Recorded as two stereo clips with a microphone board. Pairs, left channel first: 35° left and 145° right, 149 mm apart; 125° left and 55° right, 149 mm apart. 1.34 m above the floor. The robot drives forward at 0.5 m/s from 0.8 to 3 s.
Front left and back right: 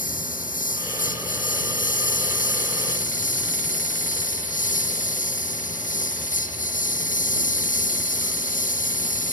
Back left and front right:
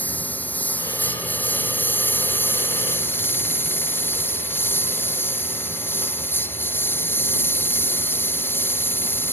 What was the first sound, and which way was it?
A lawn mower, 45° left.